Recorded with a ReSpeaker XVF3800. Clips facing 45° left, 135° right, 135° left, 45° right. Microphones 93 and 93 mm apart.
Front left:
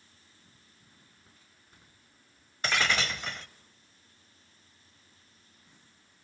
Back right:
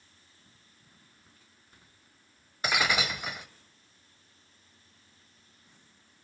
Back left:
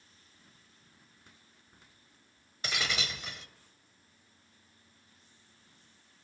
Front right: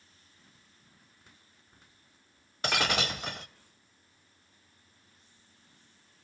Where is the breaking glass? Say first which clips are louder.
Back right 1 dB, front right 6 dB; 60° right, 0.7 m.